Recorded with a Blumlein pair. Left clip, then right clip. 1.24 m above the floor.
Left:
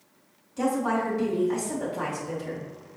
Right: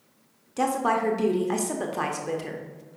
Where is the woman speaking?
65° right, 0.9 m.